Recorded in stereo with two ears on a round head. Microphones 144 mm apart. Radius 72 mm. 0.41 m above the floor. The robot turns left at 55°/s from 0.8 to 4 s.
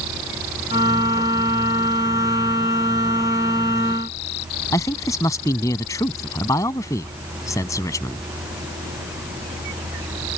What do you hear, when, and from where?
4.7 s a man speaking: 20° left (ahead or behind)